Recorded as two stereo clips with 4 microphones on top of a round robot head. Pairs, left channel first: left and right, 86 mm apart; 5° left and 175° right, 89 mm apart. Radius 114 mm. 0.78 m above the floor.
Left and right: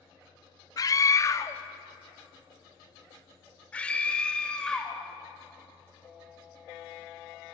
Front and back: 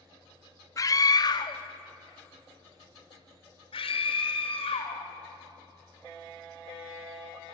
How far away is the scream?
About 1.7 m.